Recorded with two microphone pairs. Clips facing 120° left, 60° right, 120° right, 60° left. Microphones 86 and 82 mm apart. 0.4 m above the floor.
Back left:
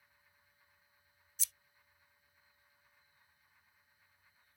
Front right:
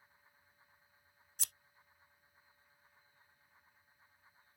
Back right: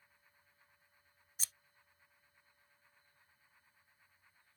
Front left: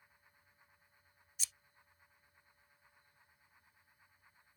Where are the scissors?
80° right.